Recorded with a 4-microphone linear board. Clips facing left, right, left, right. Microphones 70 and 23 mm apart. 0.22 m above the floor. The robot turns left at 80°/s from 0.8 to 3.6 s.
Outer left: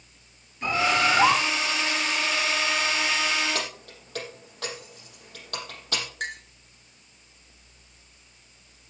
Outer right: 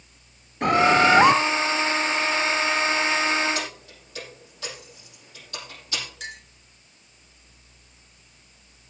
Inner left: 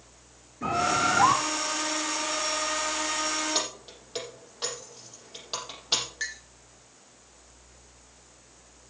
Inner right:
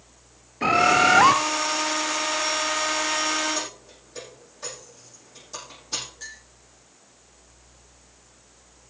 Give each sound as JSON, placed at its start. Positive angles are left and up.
{"t": 0.6, "sound": "a bird", "azimuth_deg": -70, "distance_m": 0.6}
{"t": 3.5, "sound": "keys jangling", "side_deg": 65, "distance_m": 6.0}
{"t": 6.2, "sound": "a clink", "side_deg": 50, "distance_m": 2.0}